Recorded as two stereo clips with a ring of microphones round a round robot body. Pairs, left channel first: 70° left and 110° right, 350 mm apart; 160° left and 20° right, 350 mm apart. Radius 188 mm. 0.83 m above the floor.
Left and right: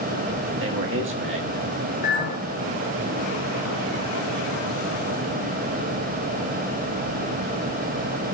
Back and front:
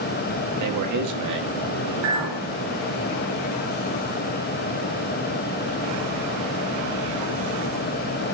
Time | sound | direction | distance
0.6 | a man speaking | 60° right | 1.3 m
2.0 | a clink | 5° left | 4.5 m